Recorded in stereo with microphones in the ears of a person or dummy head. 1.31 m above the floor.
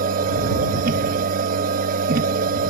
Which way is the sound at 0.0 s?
50° right (ahead or behind).